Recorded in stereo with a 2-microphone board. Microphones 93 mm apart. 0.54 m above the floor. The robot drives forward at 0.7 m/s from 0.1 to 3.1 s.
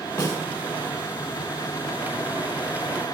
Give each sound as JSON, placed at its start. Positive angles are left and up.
{"t": 0.2, "sound": "a snare drum", "side_deg": 40, "distance_m": 1.8}